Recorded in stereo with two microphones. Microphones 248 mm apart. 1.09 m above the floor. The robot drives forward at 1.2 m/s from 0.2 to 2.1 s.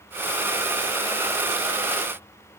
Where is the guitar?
No guitar in this recording.